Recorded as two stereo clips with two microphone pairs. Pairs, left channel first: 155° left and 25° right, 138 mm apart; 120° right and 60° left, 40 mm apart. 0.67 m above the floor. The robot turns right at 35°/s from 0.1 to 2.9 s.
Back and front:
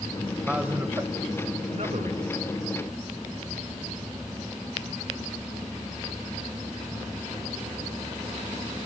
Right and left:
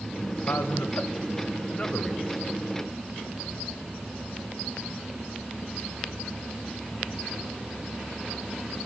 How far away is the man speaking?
About 2.5 m.